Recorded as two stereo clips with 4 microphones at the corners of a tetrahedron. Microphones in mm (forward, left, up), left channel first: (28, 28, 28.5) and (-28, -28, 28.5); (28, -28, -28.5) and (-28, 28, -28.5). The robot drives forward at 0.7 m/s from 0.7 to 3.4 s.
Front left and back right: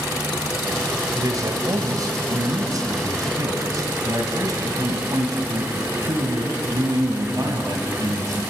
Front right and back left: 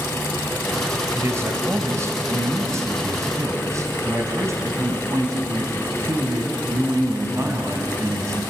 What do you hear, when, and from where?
1.1 s a man speaking: 170° right, 2 m; by 8.4 s 175° right, 3.5 m